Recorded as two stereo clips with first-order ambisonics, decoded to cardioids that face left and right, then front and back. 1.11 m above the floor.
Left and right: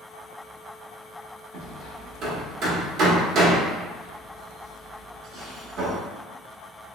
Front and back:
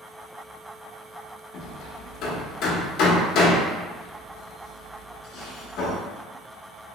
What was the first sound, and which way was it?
Hammering, 40° right.